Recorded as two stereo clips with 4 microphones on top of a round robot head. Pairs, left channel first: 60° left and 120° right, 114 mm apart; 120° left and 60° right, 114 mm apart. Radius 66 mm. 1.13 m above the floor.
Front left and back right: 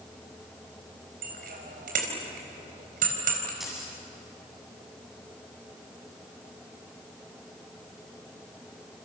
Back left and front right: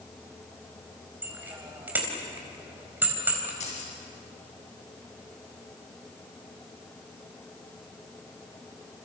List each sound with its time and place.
1.2 s a bicycle bell: 135° right, 4 m
3.6 s keys jangling: 150° left, 7.5 m